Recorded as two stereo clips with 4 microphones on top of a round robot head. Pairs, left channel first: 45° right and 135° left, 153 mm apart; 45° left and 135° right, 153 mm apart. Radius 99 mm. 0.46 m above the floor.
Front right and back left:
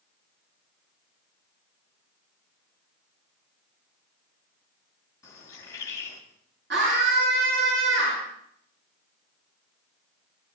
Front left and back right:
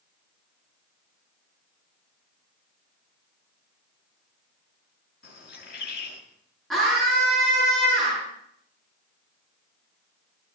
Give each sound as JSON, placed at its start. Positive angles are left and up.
{"t": 5.2, "sound": "a bird", "azimuth_deg": 25, "distance_m": 5.0}
{"t": 6.7, "sound": "a scream", "azimuth_deg": 135, "distance_m": 7.0}